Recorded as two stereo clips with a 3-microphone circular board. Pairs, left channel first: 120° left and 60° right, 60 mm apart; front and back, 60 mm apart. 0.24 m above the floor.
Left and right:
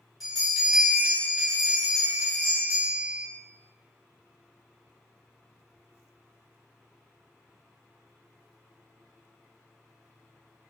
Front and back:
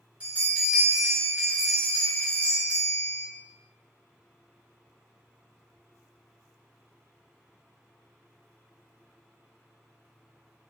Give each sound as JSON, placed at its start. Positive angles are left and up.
{"t": 0.2, "sound": "a bell", "azimuth_deg": -145, "distance_m": 1.3}